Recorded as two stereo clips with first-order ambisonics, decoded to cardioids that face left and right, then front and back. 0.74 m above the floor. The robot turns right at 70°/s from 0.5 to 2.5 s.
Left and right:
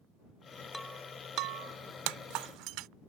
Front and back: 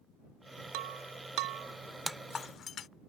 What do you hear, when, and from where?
0.7 s breaking glass: 175° left; by 2.9 s 60° right